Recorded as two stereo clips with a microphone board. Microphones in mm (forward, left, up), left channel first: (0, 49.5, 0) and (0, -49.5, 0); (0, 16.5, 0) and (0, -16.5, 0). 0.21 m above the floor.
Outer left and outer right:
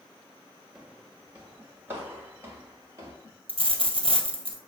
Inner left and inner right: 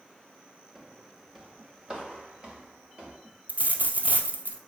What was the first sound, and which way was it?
Footsteps, 5° right (ahead or behind).